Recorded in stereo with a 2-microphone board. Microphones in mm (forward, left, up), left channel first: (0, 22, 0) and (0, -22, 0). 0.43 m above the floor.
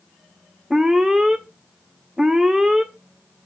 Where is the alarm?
10° right (ahead or behind), 0.9 m.